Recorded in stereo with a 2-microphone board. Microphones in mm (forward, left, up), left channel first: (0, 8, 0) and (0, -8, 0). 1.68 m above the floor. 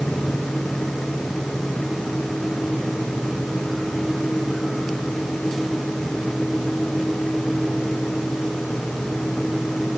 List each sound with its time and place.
Only background noise.